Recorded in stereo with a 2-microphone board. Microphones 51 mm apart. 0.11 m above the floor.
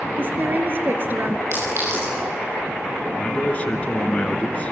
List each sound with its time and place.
0.2 s a woman speaking: 45° right (ahead or behind), 2 m
1.5 s a clink: 60° right (ahead or behind), 9.5 m
3.2 s a man speaking: 25° left (ahead or behind), 2.0 m